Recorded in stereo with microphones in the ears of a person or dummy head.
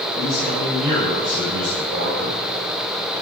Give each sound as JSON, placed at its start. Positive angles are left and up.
{"t": 0.1, "sound": "a man speaking", "side_deg": -55, "distance_m": 7.5}